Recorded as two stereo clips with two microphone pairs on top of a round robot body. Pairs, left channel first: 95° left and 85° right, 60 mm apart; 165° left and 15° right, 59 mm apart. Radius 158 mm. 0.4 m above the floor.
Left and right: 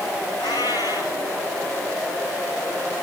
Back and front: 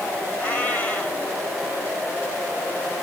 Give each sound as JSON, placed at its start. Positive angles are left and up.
{"t": 0.4, "sound": "a cat meowing", "azimuth_deg": 105, "distance_m": 4.0}